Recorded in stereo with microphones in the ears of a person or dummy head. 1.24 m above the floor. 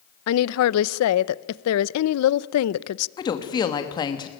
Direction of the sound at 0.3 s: 80° left.